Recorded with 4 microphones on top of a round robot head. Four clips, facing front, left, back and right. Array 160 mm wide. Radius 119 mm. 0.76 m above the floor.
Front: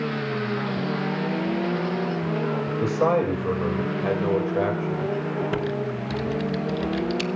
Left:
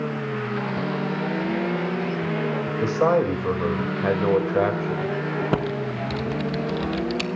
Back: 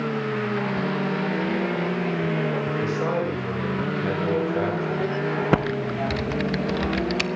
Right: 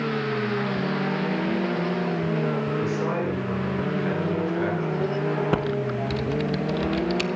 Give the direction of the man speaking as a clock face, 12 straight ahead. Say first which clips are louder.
Left 6 dB, front 7 dB; 10 o'clock.